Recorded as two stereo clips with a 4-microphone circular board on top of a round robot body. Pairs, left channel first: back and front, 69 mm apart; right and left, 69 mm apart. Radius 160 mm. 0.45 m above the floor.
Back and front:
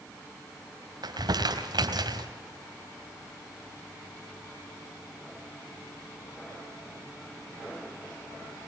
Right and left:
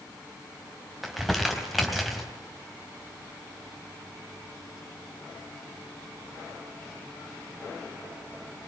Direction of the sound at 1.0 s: Straight ahead.